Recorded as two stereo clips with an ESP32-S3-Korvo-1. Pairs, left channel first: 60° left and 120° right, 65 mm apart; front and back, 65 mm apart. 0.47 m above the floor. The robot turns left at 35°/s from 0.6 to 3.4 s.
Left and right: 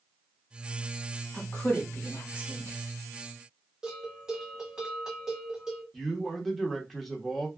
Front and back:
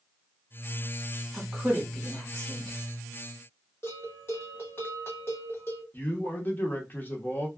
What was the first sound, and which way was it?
A woman speaking, 100° left.